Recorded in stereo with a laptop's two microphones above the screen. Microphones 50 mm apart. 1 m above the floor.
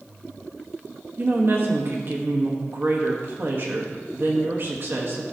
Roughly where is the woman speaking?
Right.